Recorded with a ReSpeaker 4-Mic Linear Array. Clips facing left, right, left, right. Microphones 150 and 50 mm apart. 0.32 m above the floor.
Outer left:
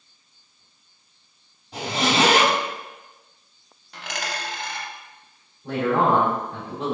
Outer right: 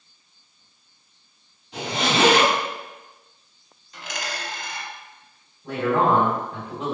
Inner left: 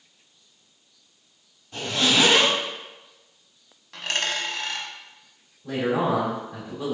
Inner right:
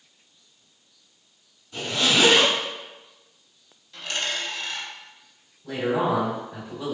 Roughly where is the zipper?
Left.